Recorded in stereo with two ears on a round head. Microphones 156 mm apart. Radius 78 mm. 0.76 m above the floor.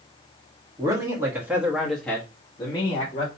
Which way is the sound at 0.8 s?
20° right (ahead or behind).